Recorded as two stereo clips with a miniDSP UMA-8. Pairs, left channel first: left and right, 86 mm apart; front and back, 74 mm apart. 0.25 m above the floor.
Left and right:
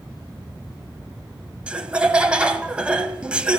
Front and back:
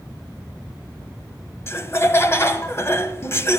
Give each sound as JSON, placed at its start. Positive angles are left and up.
{"t": 1.7, "sound": "laughter", "azimuth_deg": -20, "distance_m": 1.1}